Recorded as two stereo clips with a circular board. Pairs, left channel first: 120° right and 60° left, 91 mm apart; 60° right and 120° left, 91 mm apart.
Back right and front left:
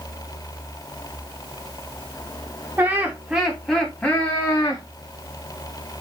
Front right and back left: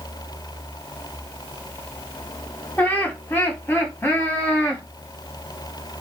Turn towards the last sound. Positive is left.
turn(degrees=-110)